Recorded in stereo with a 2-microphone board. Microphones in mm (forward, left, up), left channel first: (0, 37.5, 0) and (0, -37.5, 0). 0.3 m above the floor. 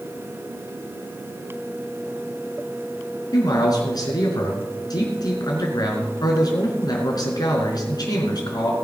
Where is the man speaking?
55° left (ahead or behind), 4.5 m.